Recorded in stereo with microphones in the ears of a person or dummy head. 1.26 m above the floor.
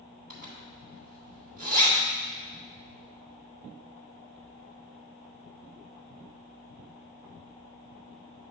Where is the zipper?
45° right (ahead or behind), 2 m.